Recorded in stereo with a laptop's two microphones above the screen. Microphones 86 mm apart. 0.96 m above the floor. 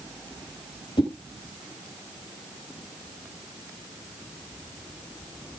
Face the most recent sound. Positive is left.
turn(degrees=85)